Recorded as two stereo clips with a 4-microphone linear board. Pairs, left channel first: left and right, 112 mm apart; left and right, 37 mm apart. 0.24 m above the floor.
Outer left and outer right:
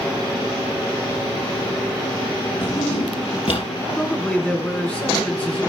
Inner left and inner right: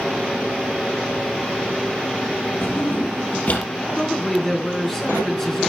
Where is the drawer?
60° left (ahead or behind), 3 m.